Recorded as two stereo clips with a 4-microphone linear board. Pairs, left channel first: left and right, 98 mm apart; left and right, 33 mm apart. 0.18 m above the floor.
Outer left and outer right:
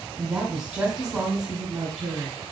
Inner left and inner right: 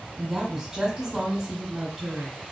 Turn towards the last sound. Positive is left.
turn(degrees=-15)  # may be behind; listen again after turning